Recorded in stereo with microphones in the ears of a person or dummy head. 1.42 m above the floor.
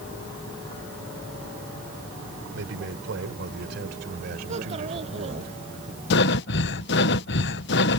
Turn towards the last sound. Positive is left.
turn(degrees=65)  # may be behind; listen again after turning